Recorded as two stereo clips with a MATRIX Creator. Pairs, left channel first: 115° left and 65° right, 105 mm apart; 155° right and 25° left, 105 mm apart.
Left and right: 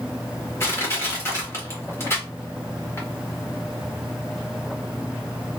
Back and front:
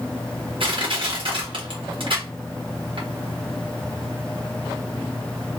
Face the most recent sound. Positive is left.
turn(degrees=50)